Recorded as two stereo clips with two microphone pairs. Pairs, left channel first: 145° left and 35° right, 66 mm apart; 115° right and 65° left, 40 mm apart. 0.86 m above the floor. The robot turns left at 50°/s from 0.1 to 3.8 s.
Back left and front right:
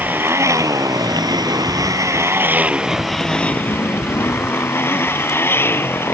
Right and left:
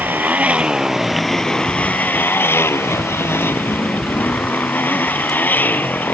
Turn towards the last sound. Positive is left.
turn(degrees=-160)